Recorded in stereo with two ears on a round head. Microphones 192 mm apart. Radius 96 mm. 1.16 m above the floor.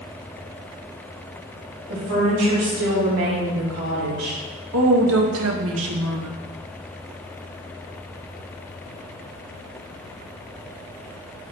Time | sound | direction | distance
1.9 | a woman speaking | 80° right | 3.5 m
4.7 | a woman speaking | 70° right (ahead or behind) | 1.1 m